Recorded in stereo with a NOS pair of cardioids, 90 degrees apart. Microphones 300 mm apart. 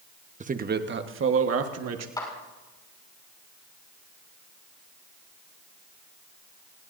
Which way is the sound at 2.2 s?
10° left.